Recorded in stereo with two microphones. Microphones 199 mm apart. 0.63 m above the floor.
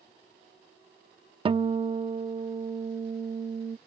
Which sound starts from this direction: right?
A guitar, at 1.4 s.